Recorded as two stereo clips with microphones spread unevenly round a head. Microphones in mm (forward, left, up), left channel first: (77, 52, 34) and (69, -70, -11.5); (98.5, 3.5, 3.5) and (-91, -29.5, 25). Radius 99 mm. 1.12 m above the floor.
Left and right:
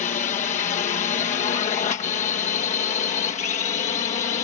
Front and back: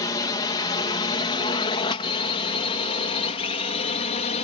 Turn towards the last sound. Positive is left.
turn(degrees=60)